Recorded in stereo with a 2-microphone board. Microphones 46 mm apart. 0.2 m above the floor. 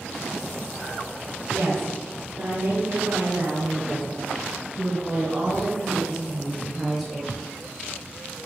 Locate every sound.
1.5 s a woman speaking: 65° right (ahead or behind), 3.5 m; by 7.5 s centre (ahead or behind), 4 m